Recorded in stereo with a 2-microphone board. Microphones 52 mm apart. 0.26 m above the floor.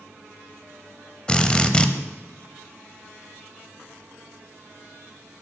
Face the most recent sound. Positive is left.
turn(degrees=20)  # may be behind; listen again after turning